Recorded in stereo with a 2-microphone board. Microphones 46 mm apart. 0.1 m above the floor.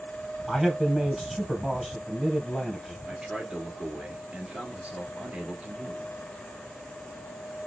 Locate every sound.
0.5 s a man speaking: 5° right (ahead or behind), 2.5 m
3.1 s a man speaking: 30° right (ahead or behind), 1.4 m